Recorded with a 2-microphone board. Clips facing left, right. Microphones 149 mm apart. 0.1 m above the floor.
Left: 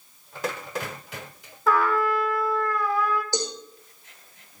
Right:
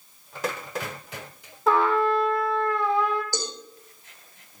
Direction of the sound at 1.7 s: 25° right (ahead or behind).